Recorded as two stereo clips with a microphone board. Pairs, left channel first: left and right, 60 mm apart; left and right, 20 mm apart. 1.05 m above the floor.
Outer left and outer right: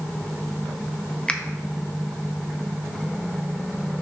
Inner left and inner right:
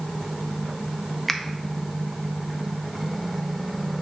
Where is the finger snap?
20° left (ahead or behind), 0.7 m.